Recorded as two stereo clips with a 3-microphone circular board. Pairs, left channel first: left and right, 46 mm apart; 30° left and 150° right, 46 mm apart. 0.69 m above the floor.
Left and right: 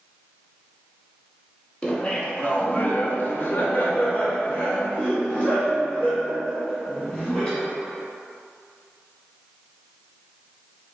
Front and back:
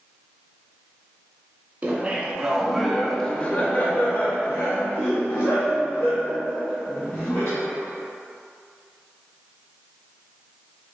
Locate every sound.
1.8 s laughter: 155° left, 1.0 m; by 7.7 s 20° left, 2.5 m